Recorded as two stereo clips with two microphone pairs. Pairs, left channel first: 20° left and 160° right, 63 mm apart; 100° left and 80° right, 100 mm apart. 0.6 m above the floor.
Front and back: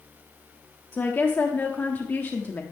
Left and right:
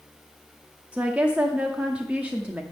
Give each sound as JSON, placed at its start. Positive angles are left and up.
{"t": 0.9, "sound": "a woman speaking", "azimuth_deg": -15, "distance_m": 0.9}